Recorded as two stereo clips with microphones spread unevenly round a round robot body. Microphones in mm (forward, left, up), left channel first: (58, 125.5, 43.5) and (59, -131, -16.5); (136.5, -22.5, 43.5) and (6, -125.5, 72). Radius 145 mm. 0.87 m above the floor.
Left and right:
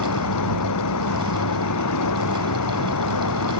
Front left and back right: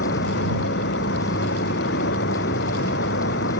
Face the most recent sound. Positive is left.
turn(degrees=80)